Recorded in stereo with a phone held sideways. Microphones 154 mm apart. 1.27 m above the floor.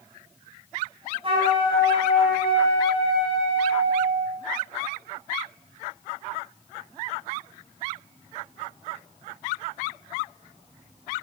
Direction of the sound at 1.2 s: 35° right (ahead or behind).